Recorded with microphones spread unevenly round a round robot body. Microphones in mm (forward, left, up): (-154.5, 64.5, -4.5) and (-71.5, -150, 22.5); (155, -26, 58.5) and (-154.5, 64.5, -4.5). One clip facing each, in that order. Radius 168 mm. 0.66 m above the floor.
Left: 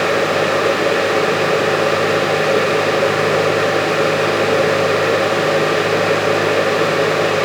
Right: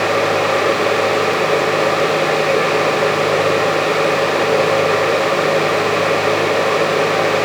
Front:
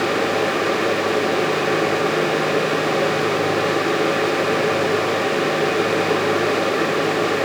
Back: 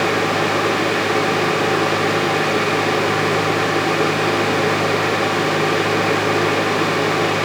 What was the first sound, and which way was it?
Only background noise.